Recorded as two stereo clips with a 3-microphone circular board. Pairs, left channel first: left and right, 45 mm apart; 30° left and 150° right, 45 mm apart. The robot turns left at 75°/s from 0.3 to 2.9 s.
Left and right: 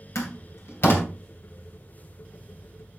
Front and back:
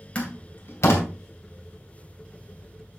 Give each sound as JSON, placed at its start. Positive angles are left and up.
{"t": 0.1, "sound": "a door slam", "azimuth_deg": 95, "distance_m": 2.5}